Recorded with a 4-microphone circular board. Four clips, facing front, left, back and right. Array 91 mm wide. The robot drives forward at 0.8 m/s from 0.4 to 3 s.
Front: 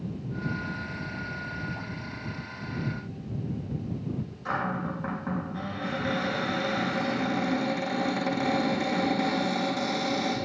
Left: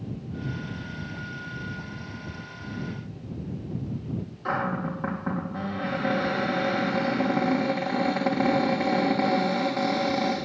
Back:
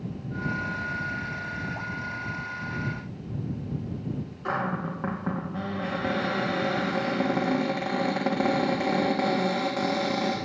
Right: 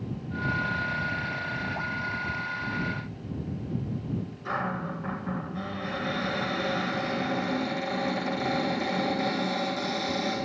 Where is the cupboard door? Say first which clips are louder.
Left 4 dB, back 1 dB; 140° left, 3 m.